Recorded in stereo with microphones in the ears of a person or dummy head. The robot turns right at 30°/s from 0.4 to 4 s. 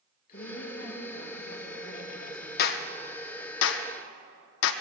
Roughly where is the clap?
Left.